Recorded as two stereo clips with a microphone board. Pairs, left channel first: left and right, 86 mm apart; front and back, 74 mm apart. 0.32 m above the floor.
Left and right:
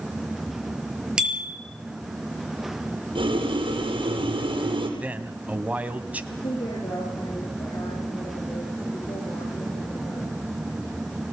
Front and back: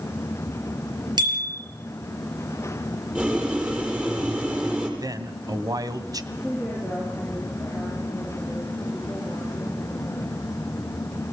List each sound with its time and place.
1.2 s a bicycle bell: 170° right, 5 m
3.1 s boiling: 105° right, 6.5 m
5.0 s a man speaking: 160° right, 2 m
6.3 s a woman speaking: 100° left, 8.5 m